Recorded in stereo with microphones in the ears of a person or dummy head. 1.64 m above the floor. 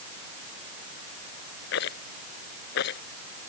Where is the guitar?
I don't hear a guitar.